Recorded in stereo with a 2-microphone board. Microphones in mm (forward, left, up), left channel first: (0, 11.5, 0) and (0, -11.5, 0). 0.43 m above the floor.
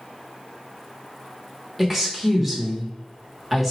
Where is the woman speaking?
5° right (ahead or behind), 0.8 m.